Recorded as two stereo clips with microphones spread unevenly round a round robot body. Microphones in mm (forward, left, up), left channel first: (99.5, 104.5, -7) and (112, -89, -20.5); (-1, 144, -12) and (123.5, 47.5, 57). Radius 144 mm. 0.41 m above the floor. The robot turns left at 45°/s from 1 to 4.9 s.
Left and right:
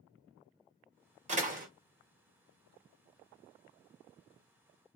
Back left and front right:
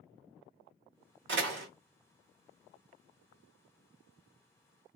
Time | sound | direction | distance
1.3 | a door slam | 45° right | 1.0 m